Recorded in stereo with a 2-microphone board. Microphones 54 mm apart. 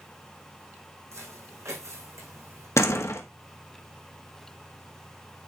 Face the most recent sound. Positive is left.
turn(degrees=60)  # may be behind; listen again after turning